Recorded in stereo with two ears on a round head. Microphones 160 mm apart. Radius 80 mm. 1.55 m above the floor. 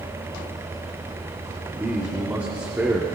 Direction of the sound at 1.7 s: 10° right (ahead or behind).